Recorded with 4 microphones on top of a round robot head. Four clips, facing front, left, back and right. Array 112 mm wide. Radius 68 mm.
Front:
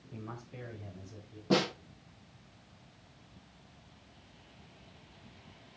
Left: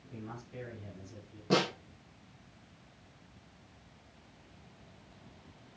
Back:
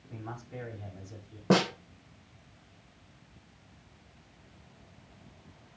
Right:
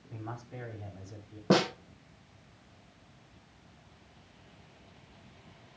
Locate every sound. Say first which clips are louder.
0.1 s a man speaking: right 2 dB, back 3 dB; 140° right, 5 m; by 1.4 s 135° right, 4.5 m
1.5 s a snare drum: right 4 dB, back 4 dB; 140° right, 4 m